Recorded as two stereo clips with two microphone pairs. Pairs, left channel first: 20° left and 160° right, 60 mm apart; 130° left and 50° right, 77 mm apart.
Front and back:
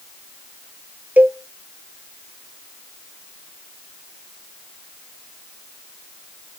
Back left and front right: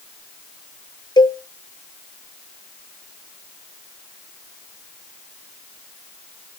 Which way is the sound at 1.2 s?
135° left.